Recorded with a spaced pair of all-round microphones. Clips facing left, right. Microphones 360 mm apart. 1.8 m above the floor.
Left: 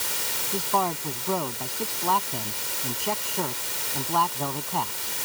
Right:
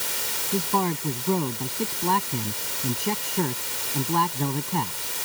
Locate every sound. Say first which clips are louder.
0.5 s a man speaking: right 3 dB; 30° right (ahead or behind)